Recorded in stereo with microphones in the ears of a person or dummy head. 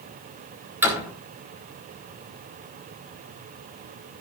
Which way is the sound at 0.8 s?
10° right (ahead or behind).